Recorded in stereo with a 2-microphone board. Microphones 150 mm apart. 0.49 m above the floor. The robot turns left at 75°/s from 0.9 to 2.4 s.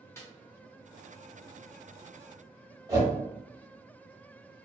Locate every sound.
0.2 s a snare drum: 20° left (ahead or behind), 0.9 m
2.9 s a whoosh: 30° right (ahead or behind), 1.1 m